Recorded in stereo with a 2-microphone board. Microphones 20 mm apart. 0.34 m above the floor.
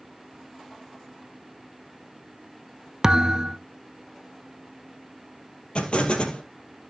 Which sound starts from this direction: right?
A thud, at 3.0 s.